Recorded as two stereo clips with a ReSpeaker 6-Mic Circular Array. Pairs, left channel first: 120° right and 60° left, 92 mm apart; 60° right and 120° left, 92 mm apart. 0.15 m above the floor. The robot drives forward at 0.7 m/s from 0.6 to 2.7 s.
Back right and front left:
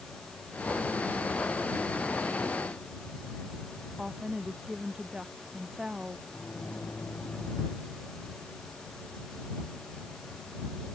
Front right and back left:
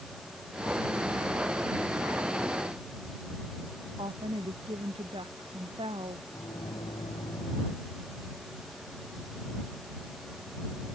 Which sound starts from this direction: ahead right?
A microwave, at 6.3 s.